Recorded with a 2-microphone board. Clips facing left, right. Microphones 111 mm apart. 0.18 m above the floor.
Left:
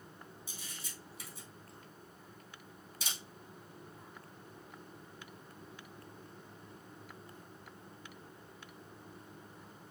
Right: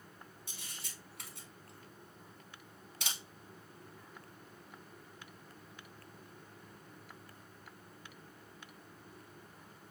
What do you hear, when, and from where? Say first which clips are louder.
0.5 s a camera shutter: left 2 dB; 65° right (ahead or behind), 2.5 m